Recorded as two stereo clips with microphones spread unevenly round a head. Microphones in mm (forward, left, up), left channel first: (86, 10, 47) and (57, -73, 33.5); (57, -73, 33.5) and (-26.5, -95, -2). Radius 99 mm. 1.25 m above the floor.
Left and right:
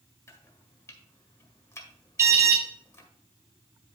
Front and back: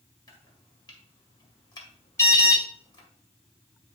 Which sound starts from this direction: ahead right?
An alarm, at 2.2 s.